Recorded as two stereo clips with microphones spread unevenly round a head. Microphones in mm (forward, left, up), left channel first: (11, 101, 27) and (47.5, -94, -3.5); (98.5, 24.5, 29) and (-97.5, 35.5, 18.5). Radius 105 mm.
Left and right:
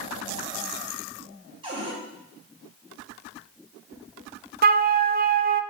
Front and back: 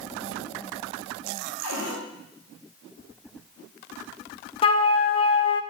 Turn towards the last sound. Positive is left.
turn(degrees=-50)